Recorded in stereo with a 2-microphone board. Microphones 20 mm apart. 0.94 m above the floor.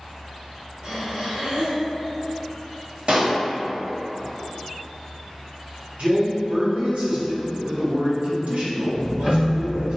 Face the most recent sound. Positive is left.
turn(degrees=-30)  # may be behind; listen again after turning